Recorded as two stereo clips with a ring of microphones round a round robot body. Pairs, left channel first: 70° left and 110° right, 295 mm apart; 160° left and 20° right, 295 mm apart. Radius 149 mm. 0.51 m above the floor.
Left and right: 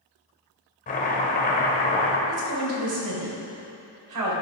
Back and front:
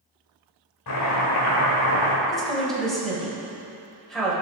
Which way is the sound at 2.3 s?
115° right.